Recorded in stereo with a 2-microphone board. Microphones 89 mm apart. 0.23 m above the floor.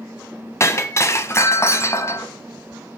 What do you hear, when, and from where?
0.6 s breaking glass: 35° left (ahead or behind), 0.9 m